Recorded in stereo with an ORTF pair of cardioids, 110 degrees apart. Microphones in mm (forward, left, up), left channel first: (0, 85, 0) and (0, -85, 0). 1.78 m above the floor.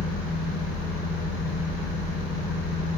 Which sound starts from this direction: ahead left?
A fan, at 0.0 s.